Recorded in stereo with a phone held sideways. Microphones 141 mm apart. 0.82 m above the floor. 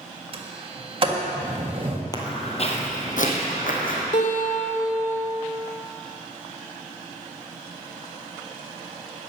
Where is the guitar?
55° left (ahead or behind), 1.9 m.